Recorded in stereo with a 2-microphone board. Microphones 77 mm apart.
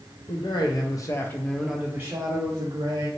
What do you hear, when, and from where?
0.3 s a man speaking: 70° left (ahead or behind), 0.9 m; by 3.1 s 55° right (ahead or behind), 1.2 m